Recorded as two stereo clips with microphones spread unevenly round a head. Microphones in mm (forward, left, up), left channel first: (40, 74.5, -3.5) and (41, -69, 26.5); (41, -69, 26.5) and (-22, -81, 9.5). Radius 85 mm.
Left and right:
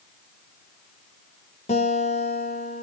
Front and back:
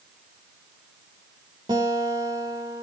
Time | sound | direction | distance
1.7 | a guitar | 145° left | 3.5 m